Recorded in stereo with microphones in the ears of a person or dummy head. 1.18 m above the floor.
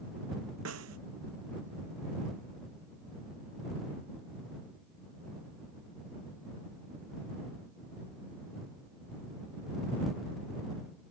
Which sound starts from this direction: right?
A snare drum, at 0.7 s.